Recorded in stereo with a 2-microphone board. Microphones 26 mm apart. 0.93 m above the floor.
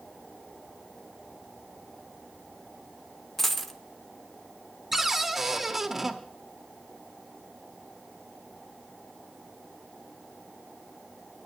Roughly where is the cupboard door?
Centre.